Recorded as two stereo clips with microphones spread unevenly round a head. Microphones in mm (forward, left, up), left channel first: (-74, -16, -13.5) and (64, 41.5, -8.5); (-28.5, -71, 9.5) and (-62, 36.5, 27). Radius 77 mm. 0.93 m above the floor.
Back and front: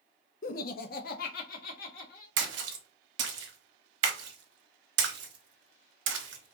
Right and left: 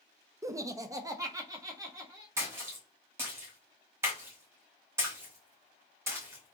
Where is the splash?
30° left, 1.0 m.